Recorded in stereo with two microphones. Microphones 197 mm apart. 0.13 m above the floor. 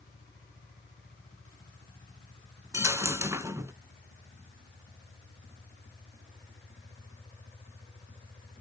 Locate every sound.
2.7 s a dropped coin: 15° right (ahead or behind), 0.5 m